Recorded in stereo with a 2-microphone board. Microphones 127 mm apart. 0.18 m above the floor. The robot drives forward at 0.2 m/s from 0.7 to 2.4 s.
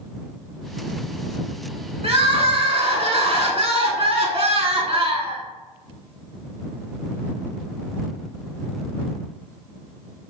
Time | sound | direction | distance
2.0 | crying | 55° right (ahead or behind) | 0.6 m